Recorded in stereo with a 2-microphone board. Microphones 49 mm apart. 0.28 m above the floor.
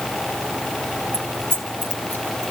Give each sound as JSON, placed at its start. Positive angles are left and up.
{"t": 1.1, "sound": "keys jangling", "side_deg": 55, "distance_m": 2.5}